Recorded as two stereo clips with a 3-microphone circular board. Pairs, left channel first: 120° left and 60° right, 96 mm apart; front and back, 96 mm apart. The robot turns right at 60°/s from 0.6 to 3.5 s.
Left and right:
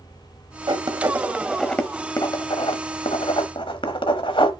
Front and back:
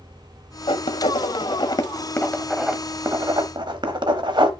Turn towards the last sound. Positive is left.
turn(degrees=145)